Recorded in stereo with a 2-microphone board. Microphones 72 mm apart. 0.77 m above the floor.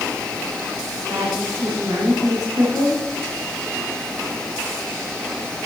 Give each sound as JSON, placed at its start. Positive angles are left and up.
{"t": 1.1, "sound": "a woman speaking", "side_deg": -75, "distance_m": 5.0}